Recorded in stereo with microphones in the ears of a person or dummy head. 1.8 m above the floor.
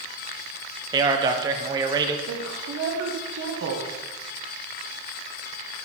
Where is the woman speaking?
65° right (ahead or behind), 1.3 m.